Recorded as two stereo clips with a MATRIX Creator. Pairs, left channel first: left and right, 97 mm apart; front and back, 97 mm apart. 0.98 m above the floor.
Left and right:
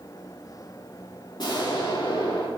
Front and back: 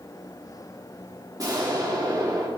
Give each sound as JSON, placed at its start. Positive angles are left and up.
{"t": 1.4, "sound": "an explosion", "azimuth_deg": 130, "distance_m": 2.5}